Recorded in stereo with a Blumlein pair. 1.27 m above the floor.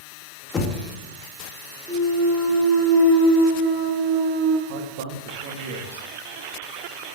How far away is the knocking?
About 2.5 m.